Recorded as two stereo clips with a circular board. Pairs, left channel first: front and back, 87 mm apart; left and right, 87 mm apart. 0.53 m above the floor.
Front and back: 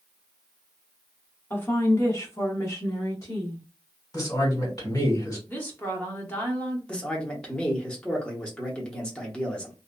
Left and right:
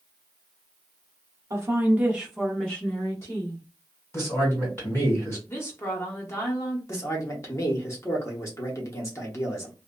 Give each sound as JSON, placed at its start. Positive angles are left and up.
{"t": 1.5, "sound": "a woman speaking", "azimuth_deg": -55, "distance_m": 0.9}
{"t": 4.1, "sound": "a man speaking", "azimuth_deg": 35, "distance_m": 1.9}
{"t": 5.5, "sound": "a woman speaking", "azimuth_deg": 55, "distance_m": 1.0}
{"t": 6.9, "sound": "a man speaking", "azimuth_deg": 70, "distance_m": 0.9}